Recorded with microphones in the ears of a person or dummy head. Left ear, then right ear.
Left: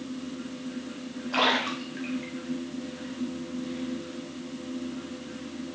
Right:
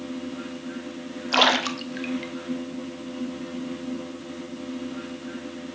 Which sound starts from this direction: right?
A splash, at 1.3 s.